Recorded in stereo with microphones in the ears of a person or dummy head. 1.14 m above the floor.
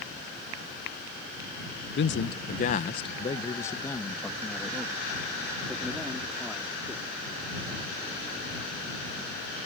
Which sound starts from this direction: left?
A man speaking, at 1.9 s.